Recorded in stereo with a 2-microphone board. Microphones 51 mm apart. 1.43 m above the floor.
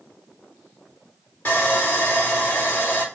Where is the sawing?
30° left (ahead or behind), 4 m.